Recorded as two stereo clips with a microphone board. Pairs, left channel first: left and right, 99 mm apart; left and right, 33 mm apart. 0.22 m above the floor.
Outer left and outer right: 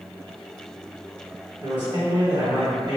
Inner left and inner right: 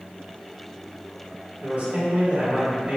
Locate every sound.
1.6 s a man speaking: 50° right (ahead or behind), 1.9 m